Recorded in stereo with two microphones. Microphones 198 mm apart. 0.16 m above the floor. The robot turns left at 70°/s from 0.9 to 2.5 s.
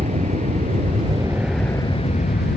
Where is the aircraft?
40° right (ahead or behind); by 2.6 s 55° left (ahead or behind).